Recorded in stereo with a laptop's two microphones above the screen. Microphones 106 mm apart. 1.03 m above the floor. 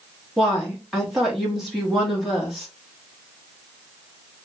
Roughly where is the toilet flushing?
I don't hear a toilet flushing.